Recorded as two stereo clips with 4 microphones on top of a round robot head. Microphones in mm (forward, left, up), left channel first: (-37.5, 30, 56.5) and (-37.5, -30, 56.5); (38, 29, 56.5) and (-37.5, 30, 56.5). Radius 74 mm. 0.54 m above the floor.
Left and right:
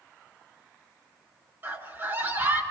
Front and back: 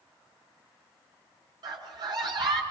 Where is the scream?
140° right, 8.5 m.